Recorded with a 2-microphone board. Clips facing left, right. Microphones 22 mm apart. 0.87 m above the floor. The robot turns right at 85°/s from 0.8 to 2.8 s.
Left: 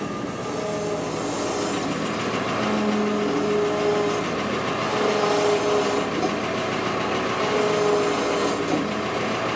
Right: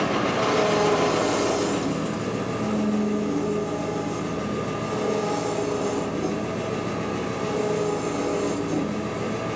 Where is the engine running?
70° right, 1.0 m; by 9.6 s 100° left, 1.0 m.